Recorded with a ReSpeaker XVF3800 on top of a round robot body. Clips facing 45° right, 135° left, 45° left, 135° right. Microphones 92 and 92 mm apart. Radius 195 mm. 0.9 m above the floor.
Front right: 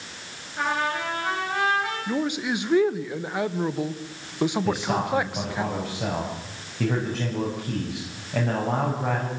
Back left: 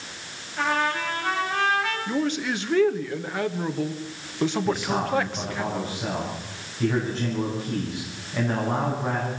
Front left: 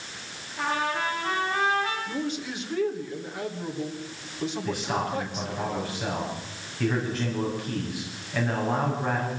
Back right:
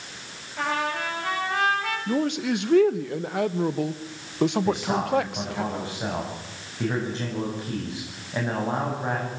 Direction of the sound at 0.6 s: 125° right.